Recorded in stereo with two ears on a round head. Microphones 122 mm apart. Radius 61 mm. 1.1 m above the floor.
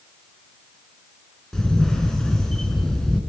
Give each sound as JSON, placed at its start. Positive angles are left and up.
{"t": 1.5, "sound": "a camera shutter", "side_deg": 5, "distance_m": 3.0}